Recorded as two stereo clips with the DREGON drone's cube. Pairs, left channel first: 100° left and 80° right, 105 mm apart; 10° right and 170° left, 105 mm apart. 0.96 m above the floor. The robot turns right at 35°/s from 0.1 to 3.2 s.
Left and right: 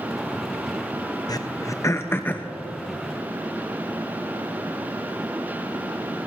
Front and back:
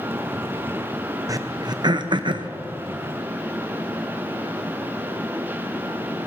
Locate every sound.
1.3 s throat clearing: 130° left, 0.6 m; by 2.5 s 170° left, 0.6 m